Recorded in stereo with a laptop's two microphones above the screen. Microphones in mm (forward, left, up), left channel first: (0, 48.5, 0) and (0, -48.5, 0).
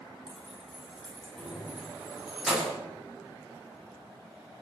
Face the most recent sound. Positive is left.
turn(degrees=-5)  # may be behind; listen again after turning